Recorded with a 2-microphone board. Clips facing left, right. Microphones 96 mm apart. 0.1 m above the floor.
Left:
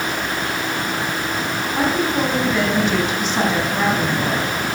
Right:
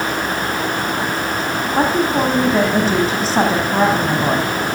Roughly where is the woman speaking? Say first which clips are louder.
Right 3 dB; right.